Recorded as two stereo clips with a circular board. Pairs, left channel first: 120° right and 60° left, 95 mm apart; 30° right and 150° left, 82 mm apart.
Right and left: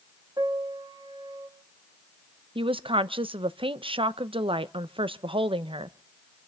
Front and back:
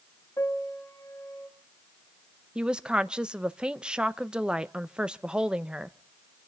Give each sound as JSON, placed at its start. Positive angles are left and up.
{"t": 0.4, "sound": "a piano", "azimuth_deg": 15, "distance_m": 2.0}
{"t": 2.5, "sound": "a woman speaking", "azimuth_deg": 70, "distance_m": 0.6}